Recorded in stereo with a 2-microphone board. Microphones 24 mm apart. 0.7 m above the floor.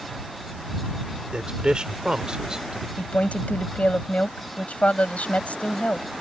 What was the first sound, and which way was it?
A man speaking, 40° right (ahead or behind).